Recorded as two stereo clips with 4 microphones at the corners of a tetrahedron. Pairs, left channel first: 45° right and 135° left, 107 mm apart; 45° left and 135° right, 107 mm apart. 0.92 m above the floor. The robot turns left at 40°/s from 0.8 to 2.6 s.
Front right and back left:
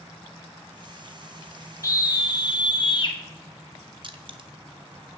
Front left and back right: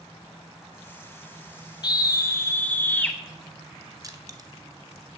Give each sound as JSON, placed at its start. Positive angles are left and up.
{"t": 1.8, "sound": "a scream", "azimuth_deg": 5, "distance_m": 0.5}
{"t": 4.0, "sound": "crushing", "azimuth_deg": 175, "distance_m": 0.5}